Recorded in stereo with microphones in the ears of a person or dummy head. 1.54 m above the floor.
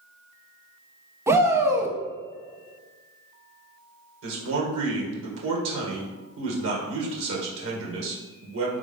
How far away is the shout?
About 0.8 m.